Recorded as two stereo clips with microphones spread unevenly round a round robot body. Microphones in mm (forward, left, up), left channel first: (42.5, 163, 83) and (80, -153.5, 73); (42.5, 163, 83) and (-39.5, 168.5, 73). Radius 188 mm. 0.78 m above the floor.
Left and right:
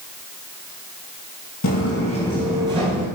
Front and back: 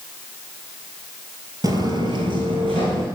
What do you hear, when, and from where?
1.6 s footsteps: 135° left, 1.2 m; by 3.1 s 150° right, 1.5 m